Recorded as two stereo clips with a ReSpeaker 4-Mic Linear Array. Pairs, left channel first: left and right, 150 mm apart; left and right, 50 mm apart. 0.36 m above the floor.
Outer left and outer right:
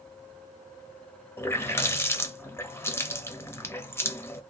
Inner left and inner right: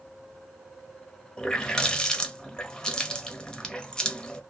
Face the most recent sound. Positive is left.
turn(degrees=15)  # may be behind; listen again after turning